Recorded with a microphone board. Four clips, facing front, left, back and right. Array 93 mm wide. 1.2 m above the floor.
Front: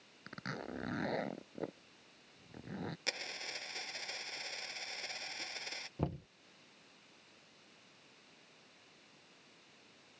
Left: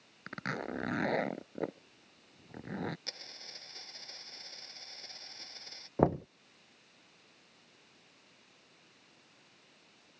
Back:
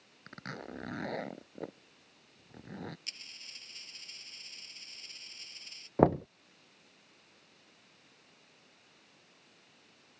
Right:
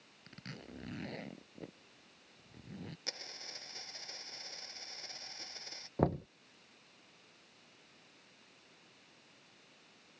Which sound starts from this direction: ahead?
A dropped coin, at 3.1 s.